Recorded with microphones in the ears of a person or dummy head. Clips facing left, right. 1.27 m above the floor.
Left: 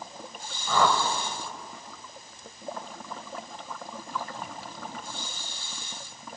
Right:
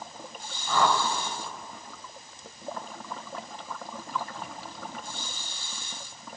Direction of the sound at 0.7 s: 80° left.